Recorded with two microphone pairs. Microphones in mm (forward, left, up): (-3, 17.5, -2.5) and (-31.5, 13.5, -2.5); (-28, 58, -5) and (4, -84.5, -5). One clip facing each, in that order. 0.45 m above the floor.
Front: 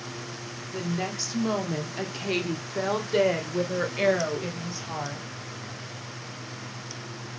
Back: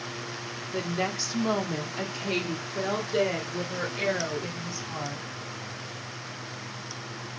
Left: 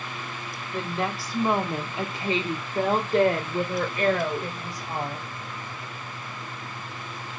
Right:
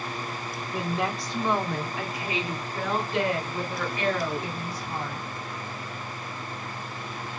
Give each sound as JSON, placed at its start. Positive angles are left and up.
{"t": 0.7, "sound": "a woman speaking", "azimuth_deg": -145, "distance_m": 0.9}